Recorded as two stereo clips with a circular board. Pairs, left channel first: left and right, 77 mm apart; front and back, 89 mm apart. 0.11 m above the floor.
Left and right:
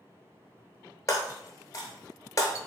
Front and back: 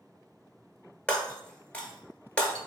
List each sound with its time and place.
1.1 s breaking glass: 70° left, 0.9 m